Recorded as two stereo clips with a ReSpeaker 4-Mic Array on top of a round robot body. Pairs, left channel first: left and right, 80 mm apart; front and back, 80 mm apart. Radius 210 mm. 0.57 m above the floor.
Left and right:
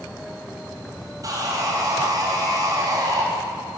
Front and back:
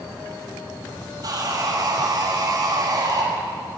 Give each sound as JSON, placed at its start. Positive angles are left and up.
{"t": 1.2, "sound": "sawing", "azimuth_deg": -135, "distance_m": 6.0}